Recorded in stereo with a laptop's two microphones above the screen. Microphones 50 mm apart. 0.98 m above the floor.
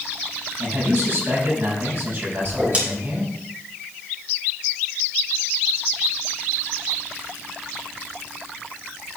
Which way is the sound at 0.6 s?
50° right (ahead or behind).